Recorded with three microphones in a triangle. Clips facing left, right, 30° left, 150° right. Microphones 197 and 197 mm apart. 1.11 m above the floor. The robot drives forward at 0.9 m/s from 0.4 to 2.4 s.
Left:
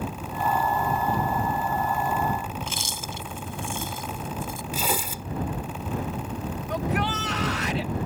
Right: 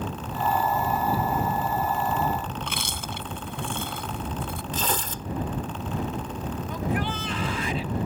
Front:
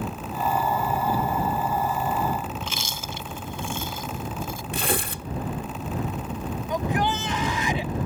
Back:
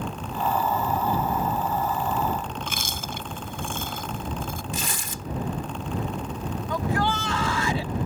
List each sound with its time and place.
2.6 s chewing: 115° right
4.7 s tearing paper: 10° left
6.7 s a shout: 100° left